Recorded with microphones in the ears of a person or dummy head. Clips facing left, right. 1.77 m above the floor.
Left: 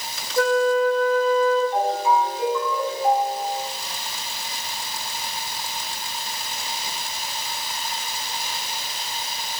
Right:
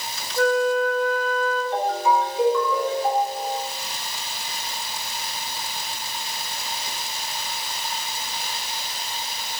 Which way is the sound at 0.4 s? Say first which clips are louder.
Left 1 dB; 65° left (ahead or behind).